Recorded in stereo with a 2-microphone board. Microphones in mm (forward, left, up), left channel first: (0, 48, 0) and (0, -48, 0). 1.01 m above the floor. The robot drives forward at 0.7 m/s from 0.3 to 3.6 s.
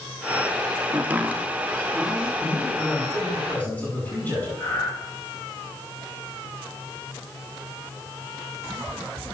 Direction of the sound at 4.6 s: 35° left (ahead or behind).